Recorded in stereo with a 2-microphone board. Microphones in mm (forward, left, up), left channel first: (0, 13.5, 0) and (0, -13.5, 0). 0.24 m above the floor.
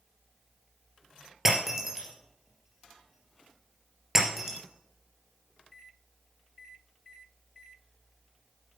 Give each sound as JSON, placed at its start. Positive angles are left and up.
{"t": 1.4, "sound": "breaking glass", "side_deg": -10, "distance_m": 2.5}